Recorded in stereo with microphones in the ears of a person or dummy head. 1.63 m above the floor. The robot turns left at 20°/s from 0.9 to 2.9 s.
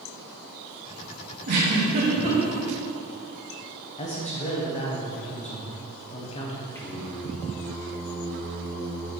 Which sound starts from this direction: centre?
Singing, at 6.8 s.